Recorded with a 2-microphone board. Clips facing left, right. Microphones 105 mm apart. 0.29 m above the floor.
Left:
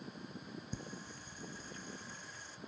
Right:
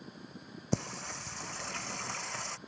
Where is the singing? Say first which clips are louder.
Right 10 dB; 80° right.